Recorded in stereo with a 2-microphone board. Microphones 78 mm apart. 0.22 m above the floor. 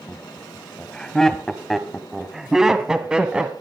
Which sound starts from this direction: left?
Laughter, at 0.1 s.